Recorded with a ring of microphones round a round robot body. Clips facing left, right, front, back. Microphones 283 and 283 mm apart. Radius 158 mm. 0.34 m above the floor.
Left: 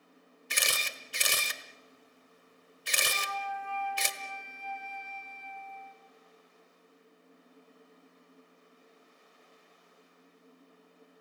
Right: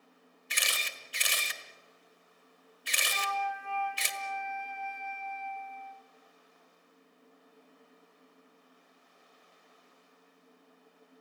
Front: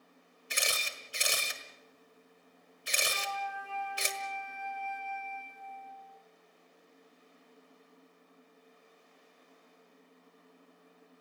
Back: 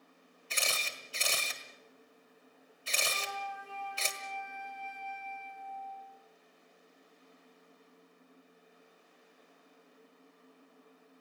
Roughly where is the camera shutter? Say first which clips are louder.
Left 4 dB, front 1 dB; left.